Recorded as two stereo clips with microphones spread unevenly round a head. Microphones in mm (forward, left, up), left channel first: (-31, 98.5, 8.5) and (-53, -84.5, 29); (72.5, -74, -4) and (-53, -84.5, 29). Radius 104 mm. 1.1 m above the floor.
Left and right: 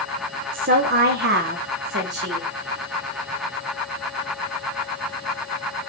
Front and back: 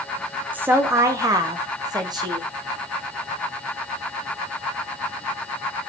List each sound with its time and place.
0.5 s a woman speaking: 90° right, 0.9 m; by 2.5 s 115° right, 1.8 m